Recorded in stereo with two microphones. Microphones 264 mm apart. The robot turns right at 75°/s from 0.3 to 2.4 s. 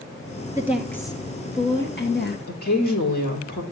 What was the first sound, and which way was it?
A woman speaking, 20° right.